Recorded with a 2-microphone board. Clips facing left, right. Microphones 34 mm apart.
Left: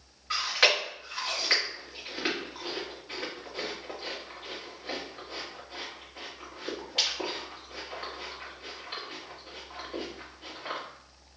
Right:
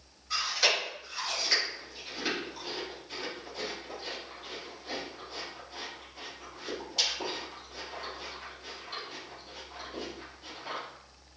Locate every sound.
0.3 s chewing: 65° left (ahead or behind), 1.6 m